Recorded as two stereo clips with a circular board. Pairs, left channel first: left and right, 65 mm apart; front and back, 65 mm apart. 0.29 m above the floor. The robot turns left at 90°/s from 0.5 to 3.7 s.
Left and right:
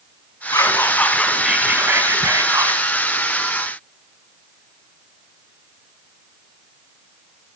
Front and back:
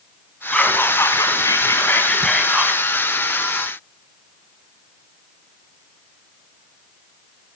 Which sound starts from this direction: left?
Whispering, at 0.5 s.